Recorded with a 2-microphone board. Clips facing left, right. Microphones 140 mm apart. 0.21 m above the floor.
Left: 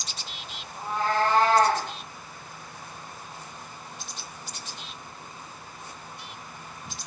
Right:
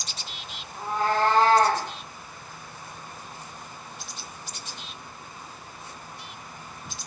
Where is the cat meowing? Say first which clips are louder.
Right 1 dB; 5° right (ahead or behind), 1.2 m; by 1.9 s 50° right (ahead or behind), 1.2 m.